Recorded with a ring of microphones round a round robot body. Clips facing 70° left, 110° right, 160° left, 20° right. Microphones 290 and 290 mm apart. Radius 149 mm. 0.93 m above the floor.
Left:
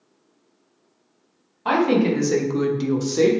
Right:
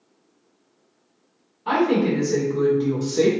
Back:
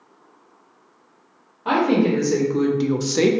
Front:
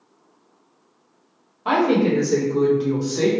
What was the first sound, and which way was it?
A woman speaking, 60° left.